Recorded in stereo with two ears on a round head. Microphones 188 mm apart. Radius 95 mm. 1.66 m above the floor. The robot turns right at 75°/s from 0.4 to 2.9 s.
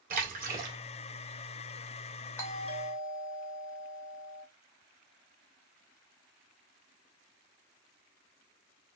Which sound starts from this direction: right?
A splash, at 0.1 s.